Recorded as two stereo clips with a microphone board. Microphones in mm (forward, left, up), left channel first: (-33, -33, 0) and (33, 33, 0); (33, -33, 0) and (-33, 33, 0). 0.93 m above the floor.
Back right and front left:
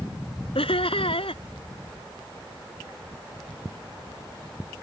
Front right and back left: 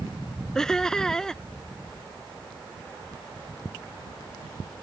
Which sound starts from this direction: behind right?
Laughter, at 0.6 s.